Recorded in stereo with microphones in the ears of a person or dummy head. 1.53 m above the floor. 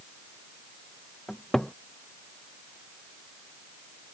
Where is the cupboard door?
Centre (ahead or behind).